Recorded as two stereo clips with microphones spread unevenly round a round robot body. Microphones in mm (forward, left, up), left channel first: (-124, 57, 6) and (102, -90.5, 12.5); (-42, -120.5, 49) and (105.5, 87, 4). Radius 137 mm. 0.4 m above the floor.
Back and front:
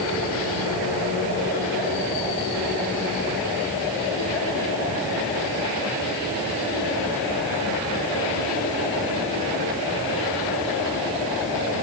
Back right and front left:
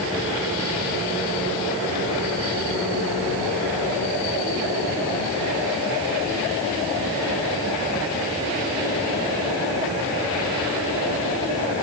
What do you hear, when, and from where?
Only background noise.